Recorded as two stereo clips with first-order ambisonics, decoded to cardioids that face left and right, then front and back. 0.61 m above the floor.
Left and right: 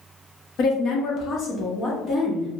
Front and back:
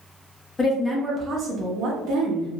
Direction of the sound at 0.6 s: 65° left.